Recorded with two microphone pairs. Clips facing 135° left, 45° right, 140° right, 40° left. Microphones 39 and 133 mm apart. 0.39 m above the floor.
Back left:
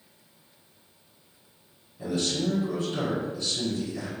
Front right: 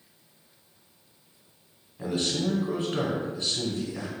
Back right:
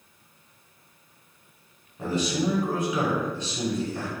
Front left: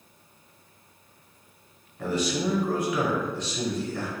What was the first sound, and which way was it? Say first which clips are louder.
A man speaking: even, back right 1 dB; 85° right.